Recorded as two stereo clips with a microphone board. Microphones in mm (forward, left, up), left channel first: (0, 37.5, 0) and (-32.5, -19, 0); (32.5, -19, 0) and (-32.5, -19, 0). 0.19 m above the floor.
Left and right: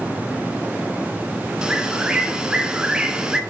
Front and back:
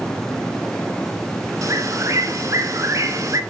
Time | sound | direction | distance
1.6 | a bird | 165° left | 1.3 m